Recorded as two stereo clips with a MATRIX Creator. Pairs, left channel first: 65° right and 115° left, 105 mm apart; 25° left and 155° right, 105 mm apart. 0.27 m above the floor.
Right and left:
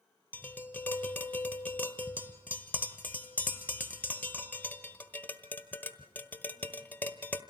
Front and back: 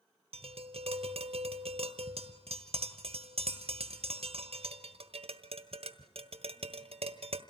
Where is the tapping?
140° right, 1.4 m.